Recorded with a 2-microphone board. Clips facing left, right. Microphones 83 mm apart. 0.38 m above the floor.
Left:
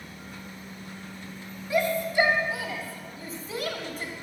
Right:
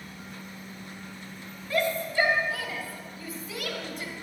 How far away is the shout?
About 2.5 m.